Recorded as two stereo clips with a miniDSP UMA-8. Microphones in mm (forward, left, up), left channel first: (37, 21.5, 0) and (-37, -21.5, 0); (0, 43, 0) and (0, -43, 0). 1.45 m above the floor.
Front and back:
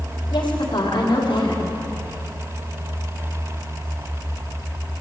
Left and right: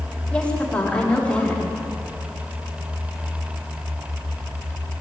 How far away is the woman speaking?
About 4 m.